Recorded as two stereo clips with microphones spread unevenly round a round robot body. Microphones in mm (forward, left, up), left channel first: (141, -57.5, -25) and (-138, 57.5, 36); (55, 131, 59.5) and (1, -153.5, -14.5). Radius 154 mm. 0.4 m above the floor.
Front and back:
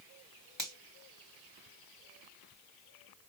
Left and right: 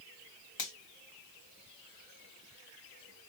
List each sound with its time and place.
0.6 s a finger snap: 65° left, 3 m